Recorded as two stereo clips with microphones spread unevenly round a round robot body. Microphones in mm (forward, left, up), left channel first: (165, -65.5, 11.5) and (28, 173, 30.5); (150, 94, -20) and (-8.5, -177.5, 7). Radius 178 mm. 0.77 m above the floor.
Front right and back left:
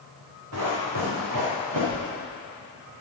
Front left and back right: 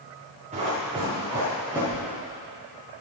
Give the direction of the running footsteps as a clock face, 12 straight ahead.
6 o'clock.